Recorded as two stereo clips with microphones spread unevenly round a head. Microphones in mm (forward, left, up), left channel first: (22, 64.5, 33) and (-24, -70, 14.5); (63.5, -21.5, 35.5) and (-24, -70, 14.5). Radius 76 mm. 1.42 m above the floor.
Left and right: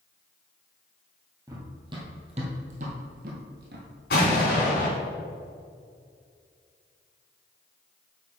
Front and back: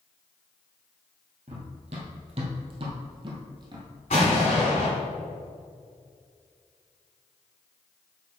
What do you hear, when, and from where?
1.5 s running footsteps: straight behind, 2.0 m; by 3.9 s 105° right, 2 m
4.1 s an explosion: 65° left, 3 m